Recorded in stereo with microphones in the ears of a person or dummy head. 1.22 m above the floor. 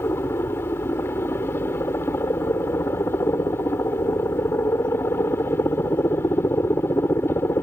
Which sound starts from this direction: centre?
A helicopter, at 0.0 s.